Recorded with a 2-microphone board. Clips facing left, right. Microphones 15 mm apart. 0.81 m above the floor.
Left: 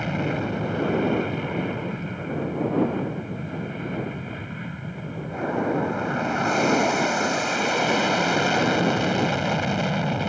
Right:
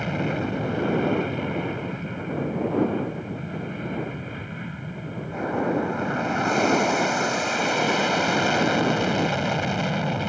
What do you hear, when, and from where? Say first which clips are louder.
0.0 s an aircraft: even; centre (ahead or behind)